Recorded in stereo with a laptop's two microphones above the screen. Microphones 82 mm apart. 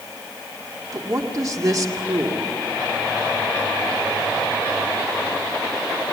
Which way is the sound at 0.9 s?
45° right (ahead or behind).